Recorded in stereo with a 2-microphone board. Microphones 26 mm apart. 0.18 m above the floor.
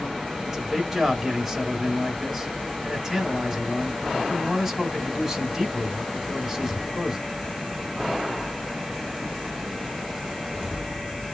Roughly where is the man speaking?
Centre.